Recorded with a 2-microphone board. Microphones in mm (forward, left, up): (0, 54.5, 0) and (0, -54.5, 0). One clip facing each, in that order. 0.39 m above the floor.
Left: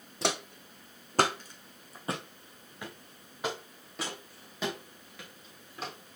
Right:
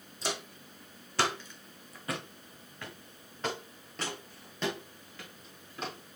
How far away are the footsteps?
About 1.4 m.